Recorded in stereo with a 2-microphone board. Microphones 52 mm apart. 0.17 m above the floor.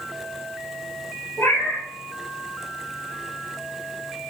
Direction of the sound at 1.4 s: 70° left (ahead or behind).